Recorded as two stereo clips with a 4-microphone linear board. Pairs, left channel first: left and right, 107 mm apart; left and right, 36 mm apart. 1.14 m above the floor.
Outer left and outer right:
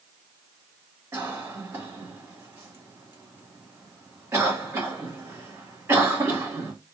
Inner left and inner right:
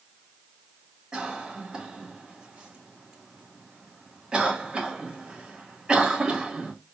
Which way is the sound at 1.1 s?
25° right (ahead or behind).